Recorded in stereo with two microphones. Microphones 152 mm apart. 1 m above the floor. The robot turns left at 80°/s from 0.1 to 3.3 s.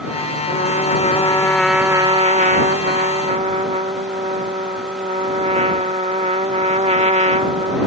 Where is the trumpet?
95° left; by 7.9 s 130° right.